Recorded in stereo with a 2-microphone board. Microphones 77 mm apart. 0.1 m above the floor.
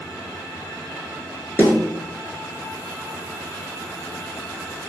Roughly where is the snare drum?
Left.